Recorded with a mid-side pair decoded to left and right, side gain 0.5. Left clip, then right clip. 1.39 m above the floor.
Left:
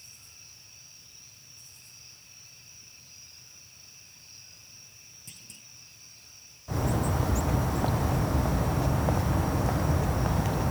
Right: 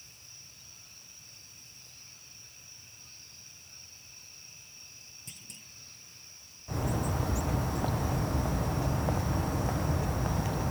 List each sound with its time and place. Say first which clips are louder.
5.3 s a clunk: even; 10° right
6.7 s a bird: left 4 dB; 25° left